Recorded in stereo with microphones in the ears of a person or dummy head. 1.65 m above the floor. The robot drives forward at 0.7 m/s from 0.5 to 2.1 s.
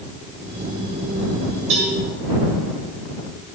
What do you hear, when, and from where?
1.7 s a cowbell: 80° right, 6 m